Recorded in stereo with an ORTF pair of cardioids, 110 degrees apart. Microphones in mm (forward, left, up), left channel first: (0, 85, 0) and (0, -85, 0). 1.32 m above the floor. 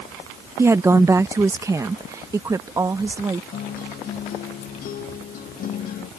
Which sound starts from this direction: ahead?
A woman speaking, at 0.6 s.